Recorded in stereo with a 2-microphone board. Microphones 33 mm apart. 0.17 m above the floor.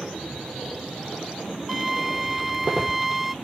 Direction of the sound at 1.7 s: 10° right (ahead or behind).